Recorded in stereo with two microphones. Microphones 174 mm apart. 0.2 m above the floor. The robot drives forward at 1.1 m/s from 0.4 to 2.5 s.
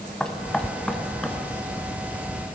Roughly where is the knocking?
Centre.